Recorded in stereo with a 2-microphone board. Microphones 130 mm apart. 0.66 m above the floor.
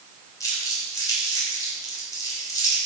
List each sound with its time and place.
0.4 s crumpling: 25° left (ahead or behind), 3 m